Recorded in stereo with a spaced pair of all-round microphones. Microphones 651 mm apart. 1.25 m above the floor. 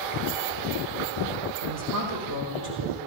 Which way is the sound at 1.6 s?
35° right (ahead or behind).